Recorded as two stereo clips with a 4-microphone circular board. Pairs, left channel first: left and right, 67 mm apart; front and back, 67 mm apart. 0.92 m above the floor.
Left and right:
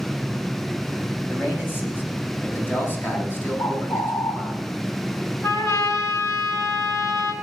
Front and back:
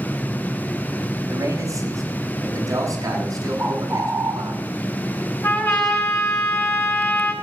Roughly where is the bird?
Behind left.